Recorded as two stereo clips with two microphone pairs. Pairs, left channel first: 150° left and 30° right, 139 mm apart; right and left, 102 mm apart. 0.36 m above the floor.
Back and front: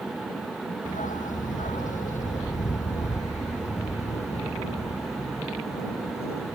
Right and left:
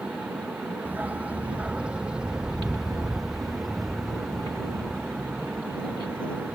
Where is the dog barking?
160° left; by 6.6 s 170° right.